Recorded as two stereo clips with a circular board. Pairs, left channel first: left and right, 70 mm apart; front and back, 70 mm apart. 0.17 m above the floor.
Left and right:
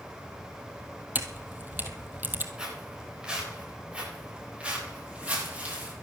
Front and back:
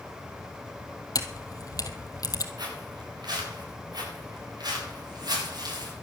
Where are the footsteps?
170° right, 9.5 m; by 5.9 s 160° right, 9.5 m.